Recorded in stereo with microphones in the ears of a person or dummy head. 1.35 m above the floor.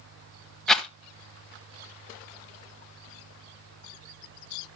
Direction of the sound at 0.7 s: 5° left (ahead or behind).